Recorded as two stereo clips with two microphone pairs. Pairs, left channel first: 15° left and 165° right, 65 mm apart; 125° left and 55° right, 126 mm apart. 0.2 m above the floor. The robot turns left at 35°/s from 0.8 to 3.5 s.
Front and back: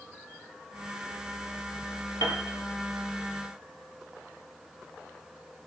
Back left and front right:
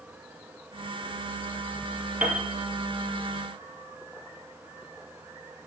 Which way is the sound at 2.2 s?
25° left.